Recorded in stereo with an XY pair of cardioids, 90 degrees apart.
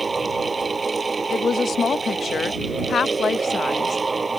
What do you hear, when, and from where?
0.0 s a fan: 25° right
1.3 s a woman speaking: 55° left